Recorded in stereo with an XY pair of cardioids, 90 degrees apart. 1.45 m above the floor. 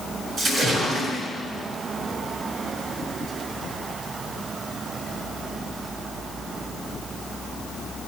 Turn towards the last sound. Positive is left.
turn(degrees=-60)